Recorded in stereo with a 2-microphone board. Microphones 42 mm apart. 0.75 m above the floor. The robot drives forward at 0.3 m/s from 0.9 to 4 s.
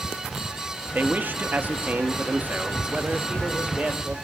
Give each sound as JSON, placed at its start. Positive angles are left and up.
{"t": 0.9, "sound": "a man speaking", "side_deg": -40, "distance_m": 0.7}